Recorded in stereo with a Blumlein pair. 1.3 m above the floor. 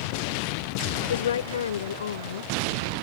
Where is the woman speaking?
65° left.